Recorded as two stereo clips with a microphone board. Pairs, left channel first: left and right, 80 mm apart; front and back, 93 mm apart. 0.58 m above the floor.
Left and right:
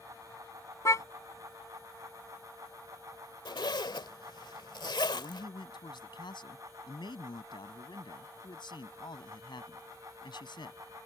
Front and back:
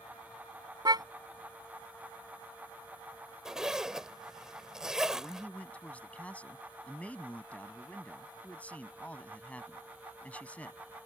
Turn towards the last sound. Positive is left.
turn(degrees=75)